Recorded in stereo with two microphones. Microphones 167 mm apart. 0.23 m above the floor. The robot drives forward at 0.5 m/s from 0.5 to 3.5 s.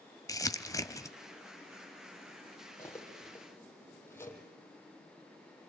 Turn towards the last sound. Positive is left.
turn(degrees=15)  # may be behind; listen again after turning